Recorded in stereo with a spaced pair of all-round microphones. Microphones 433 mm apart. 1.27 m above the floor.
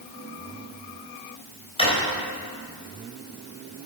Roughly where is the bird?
I don't hear a bird.